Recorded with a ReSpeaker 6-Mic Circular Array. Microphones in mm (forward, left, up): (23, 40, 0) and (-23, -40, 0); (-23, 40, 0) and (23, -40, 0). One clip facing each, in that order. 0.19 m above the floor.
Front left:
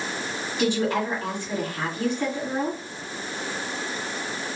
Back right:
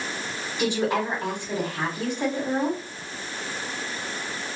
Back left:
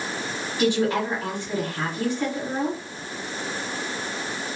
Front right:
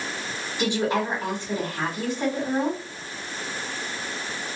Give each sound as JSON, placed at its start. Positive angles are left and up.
{"t": 0.6, "sound": "a woman speaking", "azimuth_deg": -85, "distance_m": 1.5}